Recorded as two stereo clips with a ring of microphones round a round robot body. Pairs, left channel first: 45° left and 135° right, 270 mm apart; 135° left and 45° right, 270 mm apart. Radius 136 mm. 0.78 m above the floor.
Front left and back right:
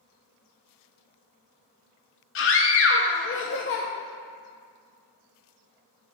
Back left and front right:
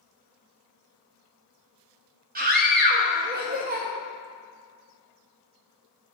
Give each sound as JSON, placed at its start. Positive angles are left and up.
{"t": 2.4, "sound": "a scream", "azimuth_deg": 10, "distance_m": 0.6}